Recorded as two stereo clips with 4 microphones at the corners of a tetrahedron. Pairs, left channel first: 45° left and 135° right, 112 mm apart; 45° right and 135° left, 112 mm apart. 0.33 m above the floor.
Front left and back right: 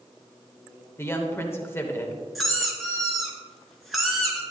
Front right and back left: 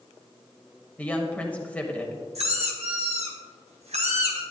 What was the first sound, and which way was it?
A woman speaking, 10° left.